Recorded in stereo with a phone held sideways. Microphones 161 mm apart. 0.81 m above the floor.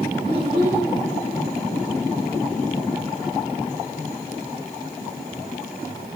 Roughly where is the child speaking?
Right.